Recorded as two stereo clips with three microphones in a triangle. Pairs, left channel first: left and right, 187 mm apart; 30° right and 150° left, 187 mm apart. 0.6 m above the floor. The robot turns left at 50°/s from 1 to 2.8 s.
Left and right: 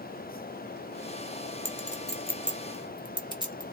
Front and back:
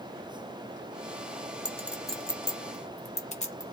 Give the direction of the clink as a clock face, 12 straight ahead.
9 o'clock.